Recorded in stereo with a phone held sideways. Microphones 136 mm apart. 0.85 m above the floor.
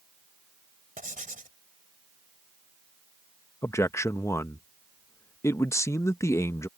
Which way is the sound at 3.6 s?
20° left (ahead or behind).